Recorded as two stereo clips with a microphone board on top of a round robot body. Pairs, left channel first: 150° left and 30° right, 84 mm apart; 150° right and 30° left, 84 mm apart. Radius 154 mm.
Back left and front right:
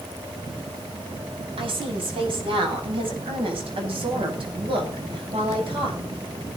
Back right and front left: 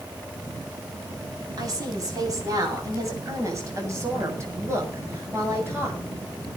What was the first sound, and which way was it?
A woman speaking, 15° right.